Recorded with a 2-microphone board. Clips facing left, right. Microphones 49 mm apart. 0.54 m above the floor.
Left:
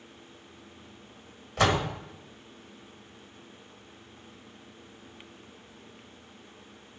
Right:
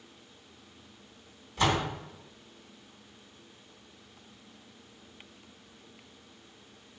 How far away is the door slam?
About 1.5 m.